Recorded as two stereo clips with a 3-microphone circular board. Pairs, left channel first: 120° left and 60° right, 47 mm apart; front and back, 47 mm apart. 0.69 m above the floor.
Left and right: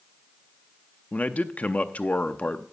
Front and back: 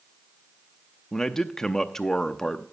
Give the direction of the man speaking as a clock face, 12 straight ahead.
9 o'clock.